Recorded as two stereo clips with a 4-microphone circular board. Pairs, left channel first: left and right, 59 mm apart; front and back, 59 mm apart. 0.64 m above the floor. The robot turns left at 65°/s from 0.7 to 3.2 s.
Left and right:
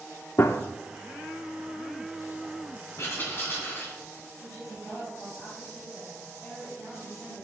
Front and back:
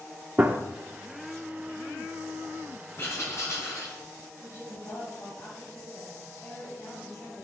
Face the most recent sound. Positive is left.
turn(degrees=25)